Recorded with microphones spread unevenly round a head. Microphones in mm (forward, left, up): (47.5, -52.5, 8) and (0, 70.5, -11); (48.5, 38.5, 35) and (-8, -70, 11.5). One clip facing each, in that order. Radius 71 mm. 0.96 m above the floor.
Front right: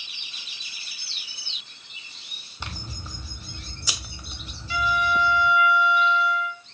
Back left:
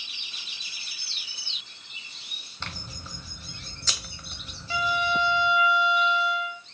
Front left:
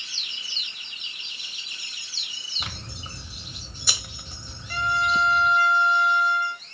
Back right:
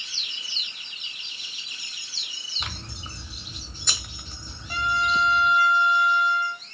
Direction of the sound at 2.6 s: 5° right.